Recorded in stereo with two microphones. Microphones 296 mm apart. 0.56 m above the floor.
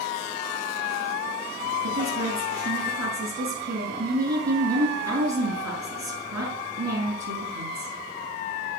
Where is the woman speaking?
75° right (ahead or behind), 6.5 m.